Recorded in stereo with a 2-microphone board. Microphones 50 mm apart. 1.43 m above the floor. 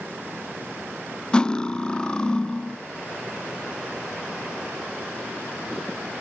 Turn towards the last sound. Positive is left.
turn(degrees=15)  # may be behind; listen again after turning